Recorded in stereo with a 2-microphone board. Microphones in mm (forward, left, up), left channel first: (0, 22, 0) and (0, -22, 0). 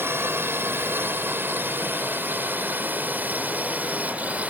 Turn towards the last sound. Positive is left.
turn(degrees=-35)  # may be behind; listen again after turning